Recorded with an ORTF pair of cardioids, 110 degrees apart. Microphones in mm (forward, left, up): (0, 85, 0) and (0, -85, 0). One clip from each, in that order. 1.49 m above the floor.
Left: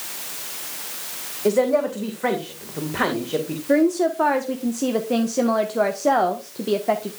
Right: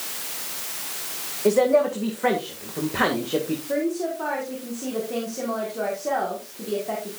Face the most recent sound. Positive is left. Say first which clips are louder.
# left 9 dB
turn(degrees=55)